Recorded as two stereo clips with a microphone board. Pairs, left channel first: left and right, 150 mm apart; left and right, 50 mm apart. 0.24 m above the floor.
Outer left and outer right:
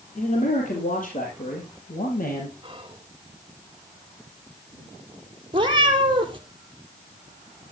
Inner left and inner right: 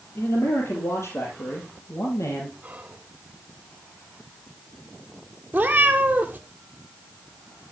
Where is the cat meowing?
35° right (ahead or behind), 2.0 m.